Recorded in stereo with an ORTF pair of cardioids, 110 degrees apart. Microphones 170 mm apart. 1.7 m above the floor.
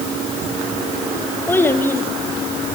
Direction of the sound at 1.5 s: 15° left.